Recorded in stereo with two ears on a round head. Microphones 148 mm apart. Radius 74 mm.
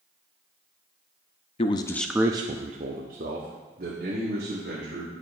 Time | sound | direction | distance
1.6 | a man speaking | 40° left (ahead or behind) | 0.6 m